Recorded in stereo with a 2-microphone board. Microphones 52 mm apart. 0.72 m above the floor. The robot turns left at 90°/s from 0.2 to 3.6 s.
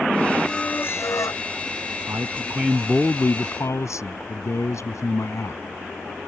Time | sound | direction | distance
0.4 | a squeak | 170° left | ?
2.1 | a man speaking | 115° right | ?